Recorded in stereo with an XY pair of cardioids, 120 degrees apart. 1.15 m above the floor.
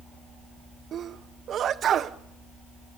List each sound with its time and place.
0.9 s a sneeze: 50° right, 0.7 m